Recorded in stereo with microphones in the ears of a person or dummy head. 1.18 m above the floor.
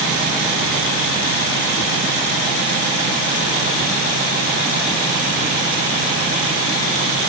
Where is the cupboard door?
I don't hear a cupboard door.